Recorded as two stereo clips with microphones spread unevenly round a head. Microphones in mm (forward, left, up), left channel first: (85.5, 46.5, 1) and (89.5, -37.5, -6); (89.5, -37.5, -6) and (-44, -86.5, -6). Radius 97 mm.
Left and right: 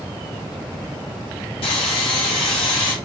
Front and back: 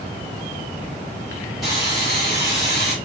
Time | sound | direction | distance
1.6 | sawing | 110° left | 3 m